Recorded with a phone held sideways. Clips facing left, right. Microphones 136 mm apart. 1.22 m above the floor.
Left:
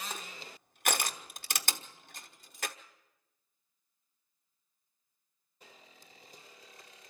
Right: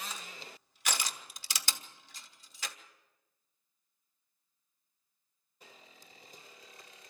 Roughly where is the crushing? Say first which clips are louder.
Left 3 dB; left.